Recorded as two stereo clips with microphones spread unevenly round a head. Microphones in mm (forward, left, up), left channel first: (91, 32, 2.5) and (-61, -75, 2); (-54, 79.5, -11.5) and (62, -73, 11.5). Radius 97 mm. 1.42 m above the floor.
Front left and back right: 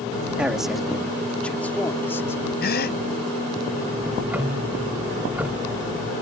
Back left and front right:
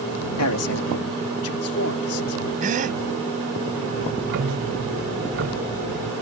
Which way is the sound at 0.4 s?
130° left.